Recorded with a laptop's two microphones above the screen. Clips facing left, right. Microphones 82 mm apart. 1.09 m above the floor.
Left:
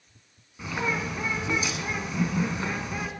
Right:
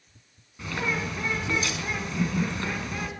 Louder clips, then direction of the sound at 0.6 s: Left 1 dB; 10° left (ahead or behind).